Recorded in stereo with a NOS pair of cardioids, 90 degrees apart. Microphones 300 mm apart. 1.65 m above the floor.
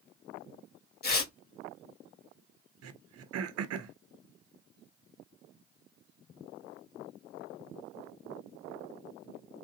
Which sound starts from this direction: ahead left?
Tearing paper, at 1.0 s.